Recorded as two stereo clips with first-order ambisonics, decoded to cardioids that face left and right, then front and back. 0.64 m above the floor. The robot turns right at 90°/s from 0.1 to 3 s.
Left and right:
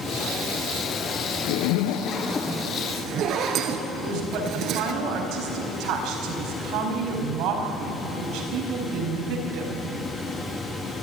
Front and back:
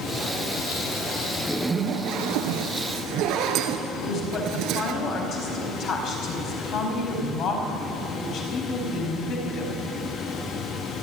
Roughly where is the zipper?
Left.